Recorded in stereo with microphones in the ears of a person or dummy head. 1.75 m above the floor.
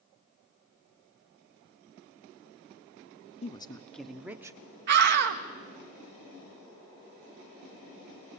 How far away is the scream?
About 1.7 m.